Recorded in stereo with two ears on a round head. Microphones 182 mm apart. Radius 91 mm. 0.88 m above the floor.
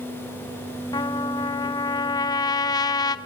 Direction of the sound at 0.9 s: 20° left (ahead or behind).